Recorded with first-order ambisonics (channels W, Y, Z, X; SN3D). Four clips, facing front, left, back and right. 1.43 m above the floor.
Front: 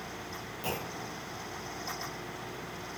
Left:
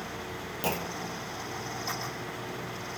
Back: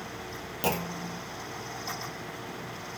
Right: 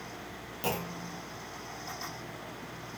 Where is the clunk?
160° left, 0.5 m.